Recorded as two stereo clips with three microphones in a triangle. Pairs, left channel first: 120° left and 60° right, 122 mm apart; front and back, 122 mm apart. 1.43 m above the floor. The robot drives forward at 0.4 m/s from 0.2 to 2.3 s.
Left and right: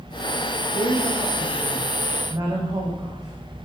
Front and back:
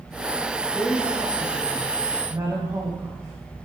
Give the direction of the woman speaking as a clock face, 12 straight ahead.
3 o'clock.